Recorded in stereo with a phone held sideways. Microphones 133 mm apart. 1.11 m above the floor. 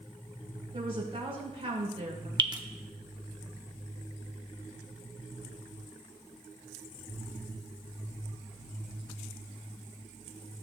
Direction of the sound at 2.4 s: 35° right (ahead or behind).